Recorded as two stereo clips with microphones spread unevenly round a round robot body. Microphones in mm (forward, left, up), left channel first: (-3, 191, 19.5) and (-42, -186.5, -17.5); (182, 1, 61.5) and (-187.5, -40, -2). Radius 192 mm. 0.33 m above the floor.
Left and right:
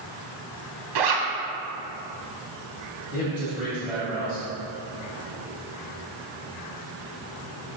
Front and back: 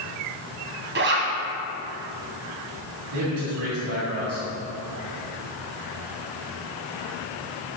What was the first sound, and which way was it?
A zipper, 115° right.